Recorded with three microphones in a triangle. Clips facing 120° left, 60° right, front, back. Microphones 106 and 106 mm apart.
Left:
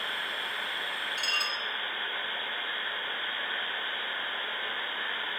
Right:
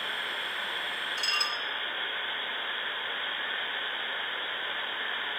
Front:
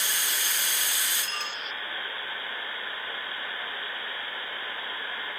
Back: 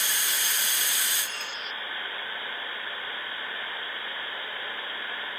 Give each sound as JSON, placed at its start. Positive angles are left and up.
{"t": 1.2, "sound": "dishes clattering", "azimuth_deg": 0, "distance_m": 2.0}